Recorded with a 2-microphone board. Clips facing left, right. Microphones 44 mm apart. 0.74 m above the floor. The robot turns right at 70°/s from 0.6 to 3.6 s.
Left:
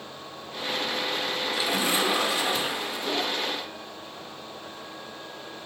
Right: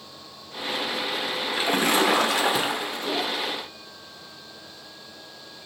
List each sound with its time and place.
1.5 s a splash: 150° right, 1.2 m; by 3.1 s 40° right, 1.2 m